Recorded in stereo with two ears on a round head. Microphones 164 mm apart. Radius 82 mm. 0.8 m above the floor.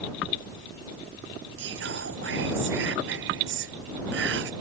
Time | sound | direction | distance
1.6 | whispering | 70° right (ahead or behind) | ?